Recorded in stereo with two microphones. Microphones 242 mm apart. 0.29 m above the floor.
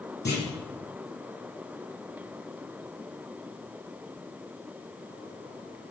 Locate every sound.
0.2 s a clunk: 45° left (ahead or behind), 9.5 m